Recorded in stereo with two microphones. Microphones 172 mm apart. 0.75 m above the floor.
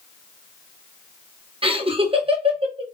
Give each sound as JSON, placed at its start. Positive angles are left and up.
{"t": 1.6, "sound": "laughter", "side_deg": -35, "distance_m": 0.8}